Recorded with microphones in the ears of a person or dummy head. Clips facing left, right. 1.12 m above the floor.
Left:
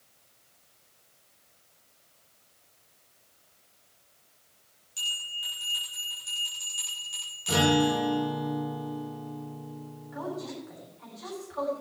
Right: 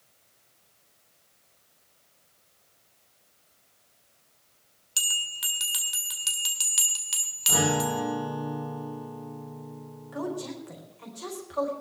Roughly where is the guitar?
Left.